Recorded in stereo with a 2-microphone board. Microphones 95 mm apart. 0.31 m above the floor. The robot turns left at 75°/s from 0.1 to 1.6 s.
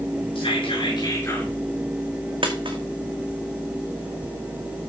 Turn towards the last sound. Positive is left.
turn(degrees=-70)  # may be behind; listen again after turning